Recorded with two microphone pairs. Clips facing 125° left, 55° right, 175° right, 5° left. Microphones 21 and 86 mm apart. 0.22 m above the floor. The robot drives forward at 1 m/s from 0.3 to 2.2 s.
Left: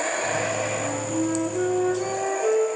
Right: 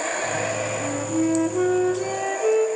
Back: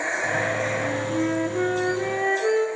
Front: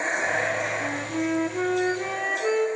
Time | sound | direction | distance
0.8 | a flute | 105° right | 5 m